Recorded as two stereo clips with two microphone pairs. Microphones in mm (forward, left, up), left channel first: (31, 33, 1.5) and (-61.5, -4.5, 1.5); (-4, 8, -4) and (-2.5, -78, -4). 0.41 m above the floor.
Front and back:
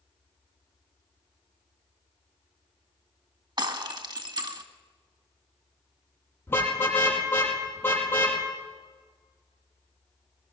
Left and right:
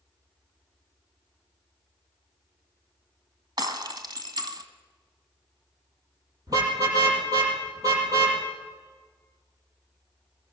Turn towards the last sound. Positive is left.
turn(degrees=-45)